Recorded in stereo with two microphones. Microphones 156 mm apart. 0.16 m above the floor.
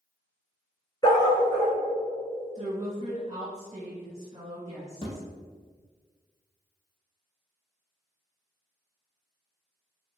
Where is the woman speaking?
30° right (ahead or behind), 1.2 m.